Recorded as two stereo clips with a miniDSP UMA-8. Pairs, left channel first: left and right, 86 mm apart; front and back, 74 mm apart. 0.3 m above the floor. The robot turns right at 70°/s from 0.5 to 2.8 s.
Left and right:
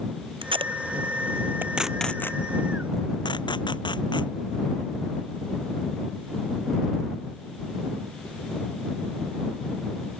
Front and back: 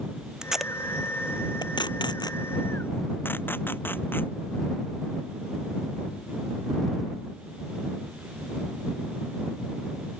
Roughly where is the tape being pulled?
Right.